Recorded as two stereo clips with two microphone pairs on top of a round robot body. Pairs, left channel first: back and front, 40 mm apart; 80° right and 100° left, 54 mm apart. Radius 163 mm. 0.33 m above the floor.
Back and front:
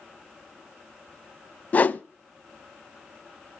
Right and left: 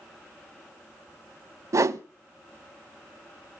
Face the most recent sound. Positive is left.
turn(degrees=125)